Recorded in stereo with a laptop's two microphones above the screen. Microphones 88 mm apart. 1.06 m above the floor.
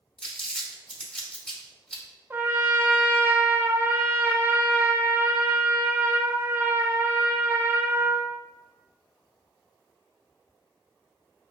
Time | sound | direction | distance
0.2 | crumpling | 10° left (ahead or behind) | 2 m
2.3 | a trumpet | 25° right (ahead or behind) | 0.6 m